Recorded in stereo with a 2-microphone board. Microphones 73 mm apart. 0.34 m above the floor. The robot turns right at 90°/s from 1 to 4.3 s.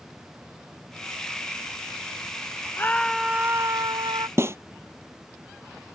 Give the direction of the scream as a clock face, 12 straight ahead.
7 o'clock.